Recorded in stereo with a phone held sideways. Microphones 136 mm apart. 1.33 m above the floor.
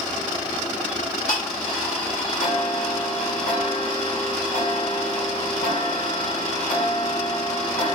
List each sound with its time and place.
0.9 s ticking: 75° left (ahead or behind), 2.5 m